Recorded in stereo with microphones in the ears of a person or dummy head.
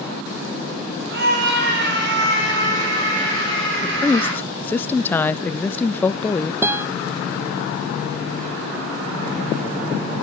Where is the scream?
65° right (ahead or behind), 6 m; by 4.4 s 85° right, 7 m.